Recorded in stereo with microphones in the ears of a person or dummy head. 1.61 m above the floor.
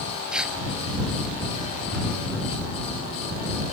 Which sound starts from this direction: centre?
Tearing paper, at 0.3 s.